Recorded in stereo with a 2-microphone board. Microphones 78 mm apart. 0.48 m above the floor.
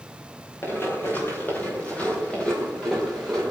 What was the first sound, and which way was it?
Running footsteps, 30° left (ahead or behind).